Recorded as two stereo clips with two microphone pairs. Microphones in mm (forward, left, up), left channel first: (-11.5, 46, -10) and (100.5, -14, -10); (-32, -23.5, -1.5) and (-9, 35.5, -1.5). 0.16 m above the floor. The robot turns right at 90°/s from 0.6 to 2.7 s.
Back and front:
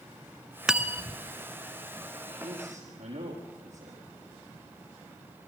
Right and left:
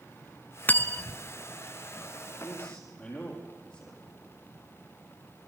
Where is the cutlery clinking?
105° right, 0.7 m; by 1.2 s 55° right, 0.7 m.